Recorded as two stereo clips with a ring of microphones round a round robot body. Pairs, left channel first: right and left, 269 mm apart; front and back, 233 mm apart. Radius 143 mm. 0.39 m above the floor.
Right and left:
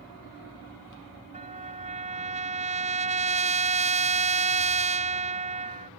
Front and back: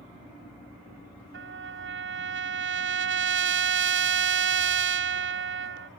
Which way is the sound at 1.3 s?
155° left.